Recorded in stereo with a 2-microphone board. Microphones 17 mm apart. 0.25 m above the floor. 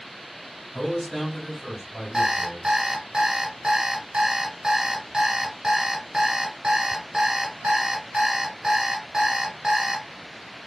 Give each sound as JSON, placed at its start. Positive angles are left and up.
{"t": 0.7, "sound": "a man speaking", "side_deg": 15, "distance_m": 1.8}
{"t": 2.1, "sound": "an alarm clock", "side_deg": -45, "distance_m": 1.0}